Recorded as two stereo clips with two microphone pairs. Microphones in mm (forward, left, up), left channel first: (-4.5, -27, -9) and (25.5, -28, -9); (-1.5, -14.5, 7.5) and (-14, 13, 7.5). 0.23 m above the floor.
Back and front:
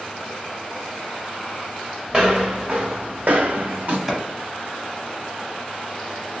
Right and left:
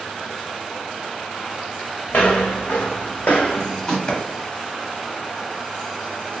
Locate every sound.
2.1 s footsteps: 75° right, 1.3 m; by 4.0 s 15° left, 0.7 m
4.1 s a clap: 85° right, 0.8 m